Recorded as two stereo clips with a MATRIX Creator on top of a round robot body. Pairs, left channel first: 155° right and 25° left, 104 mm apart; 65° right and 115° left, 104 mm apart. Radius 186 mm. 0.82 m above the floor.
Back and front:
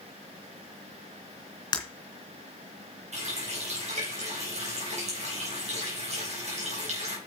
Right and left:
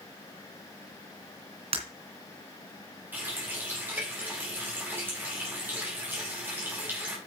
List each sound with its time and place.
1.7 s breaking glass: 145° left, 2.5 m
3.1 s a running tap: 40° left, 4 m